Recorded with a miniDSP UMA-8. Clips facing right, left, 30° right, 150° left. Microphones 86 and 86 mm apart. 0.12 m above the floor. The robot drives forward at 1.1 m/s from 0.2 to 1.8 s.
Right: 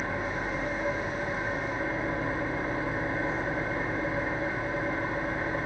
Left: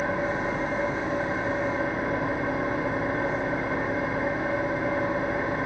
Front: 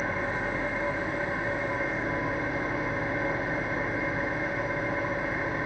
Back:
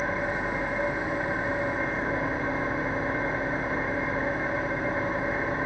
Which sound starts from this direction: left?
An engine running, at 0.0 s.